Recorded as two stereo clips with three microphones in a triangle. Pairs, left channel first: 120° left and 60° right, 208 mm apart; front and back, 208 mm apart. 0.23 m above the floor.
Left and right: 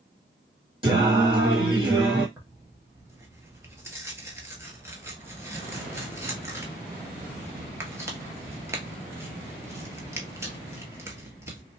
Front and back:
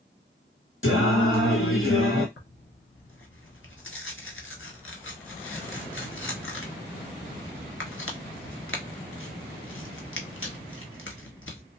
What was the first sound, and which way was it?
Singing, 5° left.